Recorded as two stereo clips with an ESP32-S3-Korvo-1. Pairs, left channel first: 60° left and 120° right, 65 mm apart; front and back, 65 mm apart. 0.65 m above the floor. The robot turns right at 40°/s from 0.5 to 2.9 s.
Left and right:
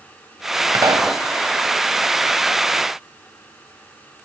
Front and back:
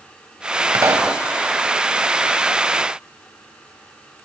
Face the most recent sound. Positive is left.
turn(degrees=-60)